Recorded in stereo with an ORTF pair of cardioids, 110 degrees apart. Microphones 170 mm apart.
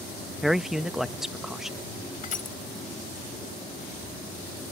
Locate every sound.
0.4 s a man speaking: straight ahead
2.2 s crushing: 50° left